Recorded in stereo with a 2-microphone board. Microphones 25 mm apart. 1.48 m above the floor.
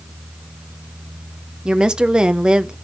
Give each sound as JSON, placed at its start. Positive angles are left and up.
{"t": 1.6, "sound": "a woman speaking", "side_deg": -30, "distance_m": 0.8}